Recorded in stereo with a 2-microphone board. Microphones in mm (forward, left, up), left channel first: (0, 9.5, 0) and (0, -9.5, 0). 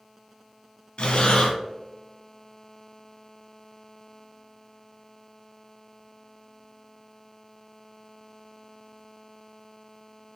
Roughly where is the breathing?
Left.